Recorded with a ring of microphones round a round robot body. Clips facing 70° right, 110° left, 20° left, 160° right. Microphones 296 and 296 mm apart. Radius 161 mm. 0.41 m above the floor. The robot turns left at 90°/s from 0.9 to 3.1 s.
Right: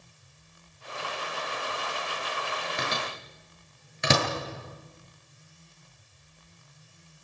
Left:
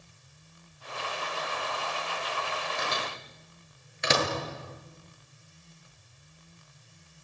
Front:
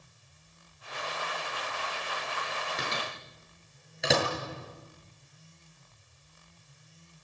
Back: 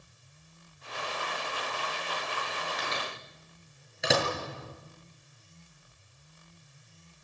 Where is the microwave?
40° right, 7.5 m; by 4.3 s 70° right, 7.5 m.